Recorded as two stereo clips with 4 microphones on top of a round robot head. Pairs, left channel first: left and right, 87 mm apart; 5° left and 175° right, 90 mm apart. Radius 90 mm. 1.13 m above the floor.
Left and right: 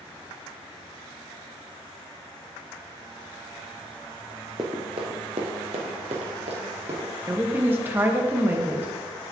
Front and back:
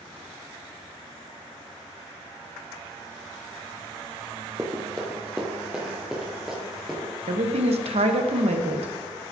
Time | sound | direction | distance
4.6 | running footsteps | 120° right | 1.2 m
7.3 | a woman speaking | 160° right | 1.0 m